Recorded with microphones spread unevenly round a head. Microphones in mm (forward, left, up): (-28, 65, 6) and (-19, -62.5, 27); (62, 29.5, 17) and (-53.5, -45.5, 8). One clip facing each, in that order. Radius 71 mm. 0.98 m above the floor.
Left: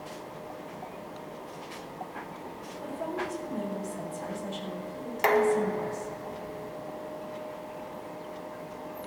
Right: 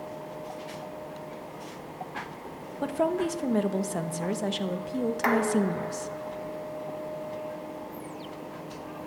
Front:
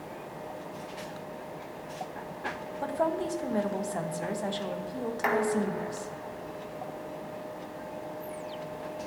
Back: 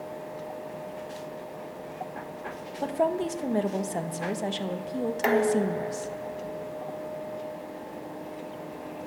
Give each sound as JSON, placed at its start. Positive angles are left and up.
{"t": 2.8, "sound": "a woman speaking", "azimuth_deg": -85, "distance_m": 1.2}
{"t": 5.2, "sound": "dishes clattering", "azimuth_deg": 155, "distance_m": 0.6}